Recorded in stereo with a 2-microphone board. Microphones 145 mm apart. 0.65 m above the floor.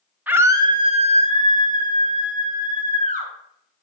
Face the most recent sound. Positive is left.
turn(degrees=-65)  # may be behind; listen again after turning